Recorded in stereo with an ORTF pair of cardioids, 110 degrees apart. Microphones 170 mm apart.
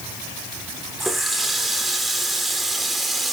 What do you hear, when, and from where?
1.0 s a running tap: straight ahead, 3 m